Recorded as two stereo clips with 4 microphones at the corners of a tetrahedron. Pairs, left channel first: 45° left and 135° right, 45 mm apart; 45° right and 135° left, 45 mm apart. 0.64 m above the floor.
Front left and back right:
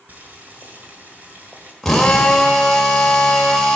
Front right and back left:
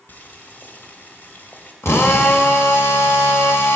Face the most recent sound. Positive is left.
turn(degrees=-40)